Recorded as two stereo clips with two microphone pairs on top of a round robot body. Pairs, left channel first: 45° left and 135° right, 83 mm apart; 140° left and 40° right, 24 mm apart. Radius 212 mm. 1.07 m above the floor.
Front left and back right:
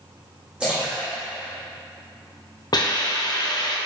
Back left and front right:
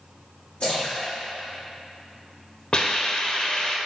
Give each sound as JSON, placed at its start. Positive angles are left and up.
{"t": 0.6, "sound": "a splash", "azimuth_deg": 140, "distance_m": 0.7}
{"t": 2.7, "sound": "a hiss", "azimuth_deg": 85, "distance_m": 0.7}